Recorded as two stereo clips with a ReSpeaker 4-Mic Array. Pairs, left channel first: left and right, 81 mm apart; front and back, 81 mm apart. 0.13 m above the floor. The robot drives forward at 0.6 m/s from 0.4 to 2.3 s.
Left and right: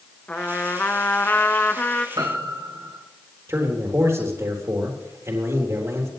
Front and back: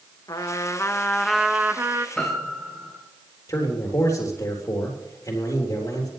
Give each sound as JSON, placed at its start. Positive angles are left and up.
{"t": 0.3, "sound": "a trumpet", "azimuth_deg": 20, "distance_m": 0.8}
{"t": 2.2, "sound": "a piano", "azimuth_deg": -80, "distance_m": 2.0}
{"t": 3.5, "sound": "a man speaking", "azimuth_deg": -40, "distance_m": 3.5}